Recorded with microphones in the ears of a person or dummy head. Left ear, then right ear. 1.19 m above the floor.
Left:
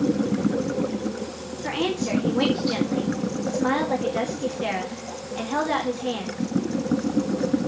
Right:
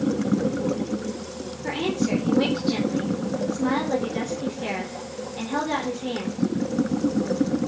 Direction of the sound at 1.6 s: 35° left (ahead or behind).